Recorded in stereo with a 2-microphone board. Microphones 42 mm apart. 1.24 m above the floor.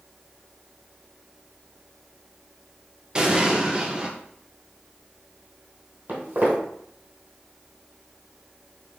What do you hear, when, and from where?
3.1 s an explosion: 25° right (ahead or behind), 0.7 m
6.1 s footsteps: 50° right (ahead or behind), 1.9 m